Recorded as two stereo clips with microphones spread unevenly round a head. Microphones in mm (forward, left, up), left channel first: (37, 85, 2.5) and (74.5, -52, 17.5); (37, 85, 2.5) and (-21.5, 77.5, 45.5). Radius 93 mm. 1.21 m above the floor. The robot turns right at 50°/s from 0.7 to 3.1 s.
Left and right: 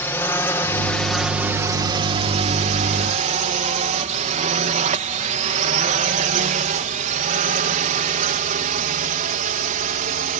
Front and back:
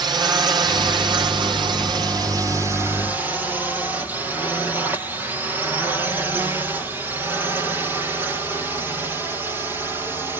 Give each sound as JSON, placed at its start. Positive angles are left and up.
{"t": 0.0, "sound": "a drone", "azimuth_deg": 175}